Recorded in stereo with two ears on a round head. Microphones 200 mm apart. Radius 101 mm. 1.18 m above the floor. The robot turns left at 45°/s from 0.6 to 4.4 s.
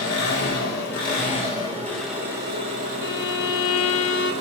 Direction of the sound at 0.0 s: 65° left.